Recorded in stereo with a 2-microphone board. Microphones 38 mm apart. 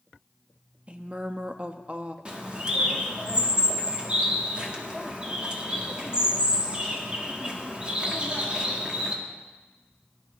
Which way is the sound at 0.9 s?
30° right (ahead or behind).